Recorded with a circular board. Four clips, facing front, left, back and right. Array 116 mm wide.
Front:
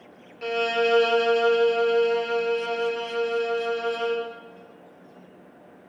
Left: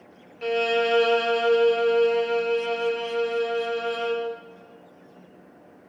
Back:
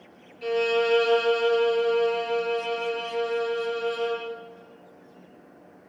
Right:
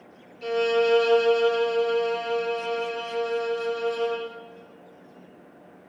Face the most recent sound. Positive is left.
turn(degrees=50)